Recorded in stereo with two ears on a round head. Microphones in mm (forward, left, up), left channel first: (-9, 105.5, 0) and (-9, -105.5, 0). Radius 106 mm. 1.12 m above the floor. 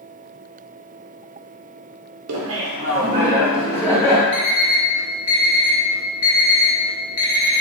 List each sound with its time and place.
2.3 s laughter: 65° right (ahead or behind), 0.6 m; by 4.2 s 5° left (ahead or behind), 1.6 m
4.3 s an alarm clock: 60° left (ahead or behind), 1.0 m